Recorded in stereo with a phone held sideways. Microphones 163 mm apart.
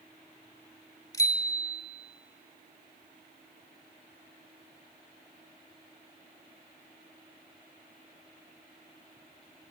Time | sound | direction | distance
1.1 | a bicycle bell | 20° left (ahead or behind) | 2.5 m